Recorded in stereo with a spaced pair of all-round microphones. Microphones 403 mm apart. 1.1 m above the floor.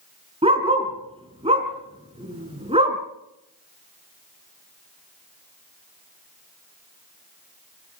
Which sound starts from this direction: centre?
A dog barking, at 0.4 s.